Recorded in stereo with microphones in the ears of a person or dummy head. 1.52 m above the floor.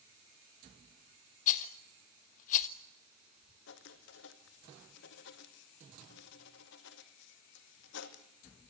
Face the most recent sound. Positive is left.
turn(degrees=65)  # may be behind; listen again after turning